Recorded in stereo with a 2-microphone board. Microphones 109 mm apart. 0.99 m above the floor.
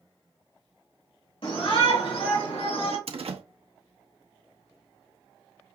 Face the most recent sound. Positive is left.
turn(degrees=-60)  # may be behind; listen again after turning